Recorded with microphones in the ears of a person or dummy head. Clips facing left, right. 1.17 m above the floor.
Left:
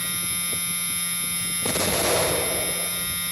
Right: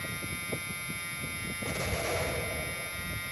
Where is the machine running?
60° left (ahead or behind).